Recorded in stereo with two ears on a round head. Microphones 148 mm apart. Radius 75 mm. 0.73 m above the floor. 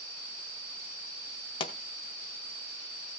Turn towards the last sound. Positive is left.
turn(degrees=35)  # may be behind; listen again after turning